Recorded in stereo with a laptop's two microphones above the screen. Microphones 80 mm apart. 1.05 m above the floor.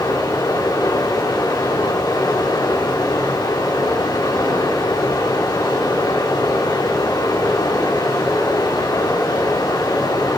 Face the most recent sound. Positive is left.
turn(degrees=80)